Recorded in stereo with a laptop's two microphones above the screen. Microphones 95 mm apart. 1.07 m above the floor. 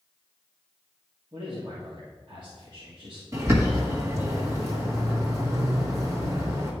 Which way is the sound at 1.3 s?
55° right (ahead or behind).